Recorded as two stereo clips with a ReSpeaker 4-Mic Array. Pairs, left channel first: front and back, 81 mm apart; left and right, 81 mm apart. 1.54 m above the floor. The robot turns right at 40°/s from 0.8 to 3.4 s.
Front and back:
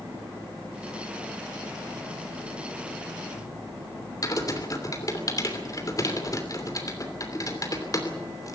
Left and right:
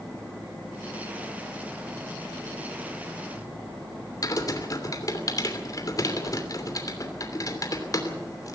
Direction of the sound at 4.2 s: 45° left.